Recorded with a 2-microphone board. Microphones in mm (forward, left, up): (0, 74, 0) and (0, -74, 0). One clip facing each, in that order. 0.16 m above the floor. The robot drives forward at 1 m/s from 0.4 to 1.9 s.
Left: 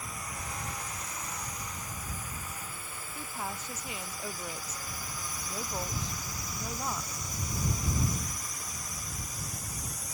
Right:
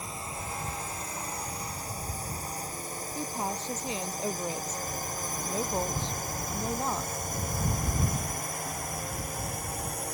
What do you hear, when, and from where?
0.0 s a drone: 25° right (ahead or behind); by 10.2 s 60° right (ahead or behind)
3.1 s a woman speaking: 30° right (ahead or behind)